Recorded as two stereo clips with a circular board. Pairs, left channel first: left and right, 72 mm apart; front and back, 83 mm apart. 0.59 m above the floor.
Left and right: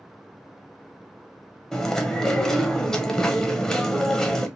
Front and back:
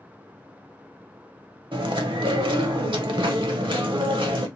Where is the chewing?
170° left, 0.7 m.